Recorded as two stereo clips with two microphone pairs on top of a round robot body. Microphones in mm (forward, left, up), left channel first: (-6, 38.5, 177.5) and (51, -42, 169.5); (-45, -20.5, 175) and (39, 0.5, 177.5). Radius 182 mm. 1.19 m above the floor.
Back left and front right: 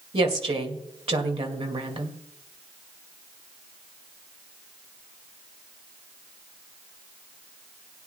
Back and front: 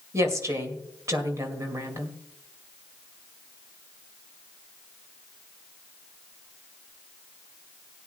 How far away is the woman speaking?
About 2 m.